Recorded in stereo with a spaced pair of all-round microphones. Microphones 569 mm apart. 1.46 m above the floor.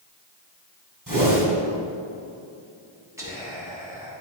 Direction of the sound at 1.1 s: 35° right (ahead or behind).